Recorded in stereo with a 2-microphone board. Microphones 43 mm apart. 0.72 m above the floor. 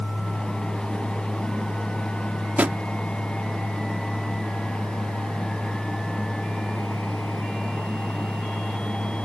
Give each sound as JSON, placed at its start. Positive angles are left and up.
{"t": 2.6, "sound": "a drawer", "side_deg": -35}